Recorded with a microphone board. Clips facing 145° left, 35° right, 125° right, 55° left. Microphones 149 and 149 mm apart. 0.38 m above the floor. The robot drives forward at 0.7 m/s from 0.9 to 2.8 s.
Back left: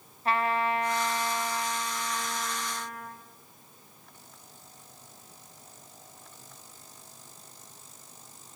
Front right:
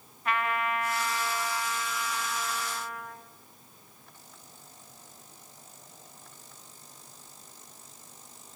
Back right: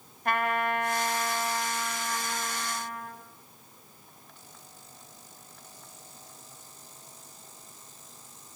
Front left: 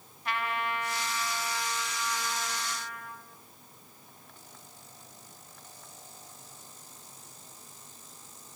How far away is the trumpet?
About 1.8 m.